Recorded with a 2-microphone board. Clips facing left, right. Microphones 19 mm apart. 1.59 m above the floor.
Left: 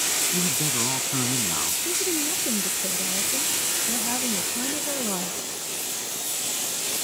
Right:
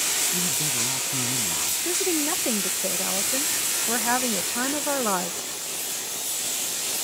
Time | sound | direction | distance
0.3 | a man speaking | 25° left (ahead or behind) | ?
1.9 | a woman speaking | 80° right | ?